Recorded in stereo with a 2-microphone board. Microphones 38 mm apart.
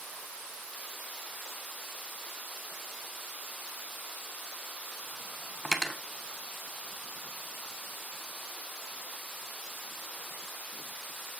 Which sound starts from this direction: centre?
Cutlery clinking, at 5.7 s.